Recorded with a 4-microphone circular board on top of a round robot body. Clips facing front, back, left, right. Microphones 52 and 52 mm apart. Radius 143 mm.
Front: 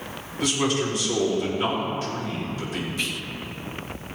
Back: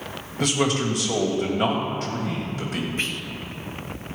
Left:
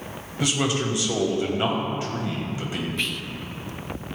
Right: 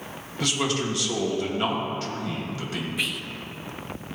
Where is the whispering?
170° right, 1.0 m.